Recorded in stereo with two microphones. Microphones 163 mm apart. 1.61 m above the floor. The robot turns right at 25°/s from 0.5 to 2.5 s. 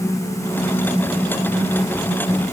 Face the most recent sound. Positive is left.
No sound to turn to.